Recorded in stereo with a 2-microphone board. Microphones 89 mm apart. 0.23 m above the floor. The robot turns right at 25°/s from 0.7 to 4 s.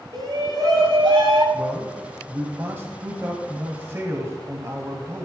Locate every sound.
0.1 s a shout: 60° right (ahead or behind), 5 m; by 1.4 s 75° right (ahead or behind), 5 m
1.5 s a man speaking: 20° right (ahead or behind), 1.6 m; by 5.2 s 30° right (ahead or behind), 1.6 m